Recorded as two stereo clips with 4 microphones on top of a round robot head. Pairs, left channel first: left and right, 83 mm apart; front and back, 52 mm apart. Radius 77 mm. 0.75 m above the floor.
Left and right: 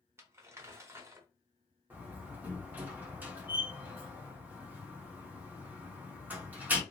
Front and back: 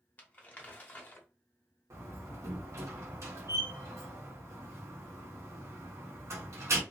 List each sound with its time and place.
0.2 s crumpling: 45° right, 0.9 m
1.9 s a door slam: 160° right, 1.2 m